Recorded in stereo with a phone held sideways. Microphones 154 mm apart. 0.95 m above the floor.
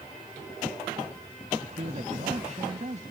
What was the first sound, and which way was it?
A man speaking, 50° right (ahead or behind).